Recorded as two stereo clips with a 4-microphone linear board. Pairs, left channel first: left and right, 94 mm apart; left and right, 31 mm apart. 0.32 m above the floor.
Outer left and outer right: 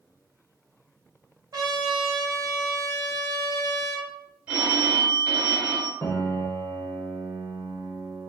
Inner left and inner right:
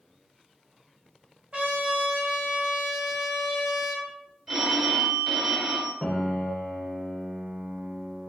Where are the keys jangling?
I don't hear keys jangling.